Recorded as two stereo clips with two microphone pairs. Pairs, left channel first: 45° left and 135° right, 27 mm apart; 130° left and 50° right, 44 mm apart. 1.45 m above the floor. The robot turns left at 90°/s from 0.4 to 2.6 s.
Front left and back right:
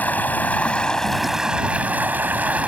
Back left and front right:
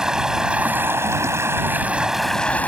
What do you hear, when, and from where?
0.0 s running water: 25° left; by 2.7 s 175° right